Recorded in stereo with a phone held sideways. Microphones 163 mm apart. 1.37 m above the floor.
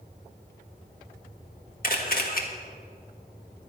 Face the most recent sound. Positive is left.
turn(degrees=65)  # may be behind; listen again after turning